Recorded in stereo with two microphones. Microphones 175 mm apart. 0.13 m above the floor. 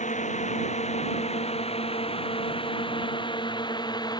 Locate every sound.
0.0 s a drone: 45° left (ahead or behind); by 4.2 s 25° left (ahead or behind)